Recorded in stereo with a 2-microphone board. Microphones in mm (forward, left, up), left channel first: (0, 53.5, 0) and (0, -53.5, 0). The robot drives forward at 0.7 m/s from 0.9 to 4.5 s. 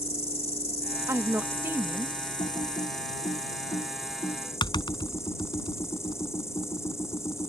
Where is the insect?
70° left (ahead or behind); by 7.5 s 25° left (ahead or behind).